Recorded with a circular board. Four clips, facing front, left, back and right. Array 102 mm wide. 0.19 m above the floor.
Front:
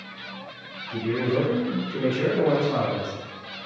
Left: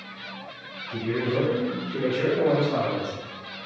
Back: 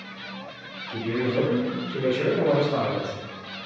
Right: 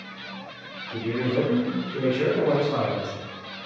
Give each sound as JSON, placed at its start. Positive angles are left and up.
{"t": 0.9, "sound": "a man speaking", "azimuth_deg": 40, "distance_m": 1.6}